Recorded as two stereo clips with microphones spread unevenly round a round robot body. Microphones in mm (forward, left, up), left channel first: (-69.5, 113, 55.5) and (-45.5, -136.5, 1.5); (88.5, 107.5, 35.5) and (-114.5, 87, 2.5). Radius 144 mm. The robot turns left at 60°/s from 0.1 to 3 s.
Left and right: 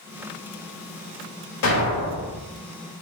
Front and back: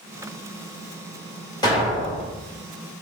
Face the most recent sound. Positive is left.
turn(degrees=0)